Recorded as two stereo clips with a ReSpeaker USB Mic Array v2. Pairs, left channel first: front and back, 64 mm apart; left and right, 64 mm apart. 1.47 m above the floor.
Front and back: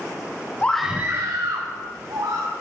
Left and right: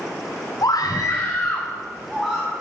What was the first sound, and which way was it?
A scream, 70° left.